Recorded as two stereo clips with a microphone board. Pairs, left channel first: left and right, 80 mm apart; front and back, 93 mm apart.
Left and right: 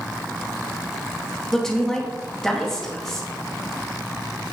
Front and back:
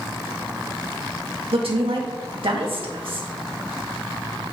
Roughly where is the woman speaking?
Behind.